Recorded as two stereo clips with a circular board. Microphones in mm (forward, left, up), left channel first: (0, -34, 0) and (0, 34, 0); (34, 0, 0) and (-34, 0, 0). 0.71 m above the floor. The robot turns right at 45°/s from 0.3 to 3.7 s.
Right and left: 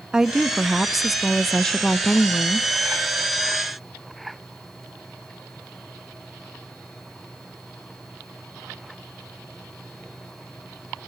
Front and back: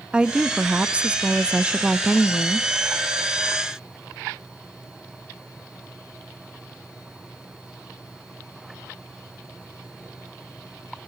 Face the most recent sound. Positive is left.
turn(degrees=-60)